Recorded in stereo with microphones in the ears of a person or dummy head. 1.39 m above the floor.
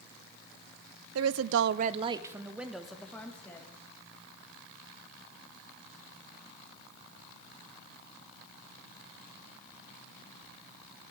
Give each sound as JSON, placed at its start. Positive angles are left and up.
{"t": 1.1, "sound": "a woman speaking", "side_deg": -80, "distance_m": 0.6}